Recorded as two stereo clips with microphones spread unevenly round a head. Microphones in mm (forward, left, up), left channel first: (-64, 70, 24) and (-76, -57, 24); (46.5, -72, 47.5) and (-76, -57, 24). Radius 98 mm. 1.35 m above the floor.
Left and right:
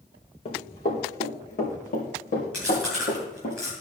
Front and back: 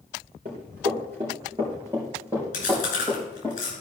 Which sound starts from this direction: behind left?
Running footsteps, at 0.5 s.